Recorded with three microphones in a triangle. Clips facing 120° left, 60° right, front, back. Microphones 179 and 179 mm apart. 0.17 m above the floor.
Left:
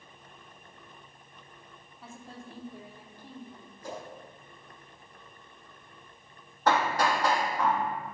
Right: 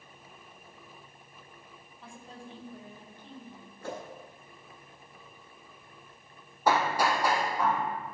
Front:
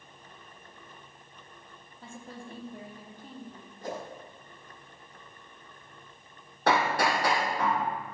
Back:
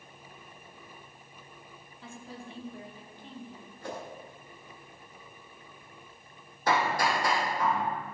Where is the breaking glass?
No breaking glass in this recording.